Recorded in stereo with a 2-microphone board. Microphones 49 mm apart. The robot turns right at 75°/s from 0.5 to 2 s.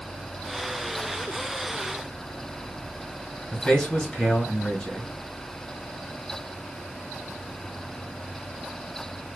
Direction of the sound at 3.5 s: 5° left (ahead or behind).